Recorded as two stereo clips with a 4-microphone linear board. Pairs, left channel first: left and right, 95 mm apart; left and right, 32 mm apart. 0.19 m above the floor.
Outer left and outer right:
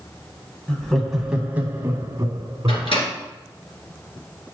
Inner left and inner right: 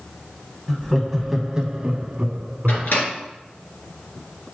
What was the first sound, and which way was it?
Laughter, 10° left (ahead or behind).